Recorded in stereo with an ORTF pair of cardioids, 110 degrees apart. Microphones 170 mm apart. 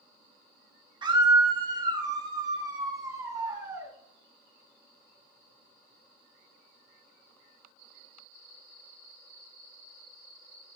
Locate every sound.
1.0 s a scream: 30° right, 1.4 m; by 3.9 s 20° right, 3 m